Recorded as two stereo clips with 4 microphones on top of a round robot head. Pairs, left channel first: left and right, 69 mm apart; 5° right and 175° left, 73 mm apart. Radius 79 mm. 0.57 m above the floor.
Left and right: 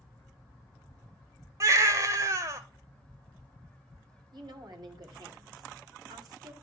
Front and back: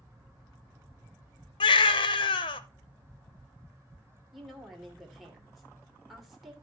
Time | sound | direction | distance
1.6 | a baby crying | 30° right | 0.6 m
4.3 | a woman speaking | 95° right | 2.5 m